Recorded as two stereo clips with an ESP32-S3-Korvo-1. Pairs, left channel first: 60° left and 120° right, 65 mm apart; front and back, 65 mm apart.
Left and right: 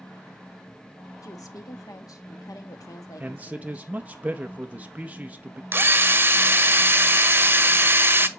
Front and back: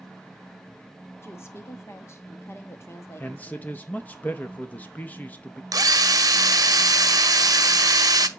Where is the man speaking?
60° right, 0.7 m.